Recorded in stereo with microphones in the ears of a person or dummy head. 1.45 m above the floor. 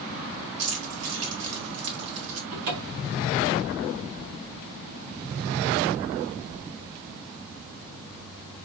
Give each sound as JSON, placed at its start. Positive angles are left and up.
{"t": 0.6, "sound": "keys jangling", "side_deg": -70, "distance_m": 1.7}
{"t": 2.5, "sound": "a cupboard door", "side_deg": -60, "distance_m": 1.5}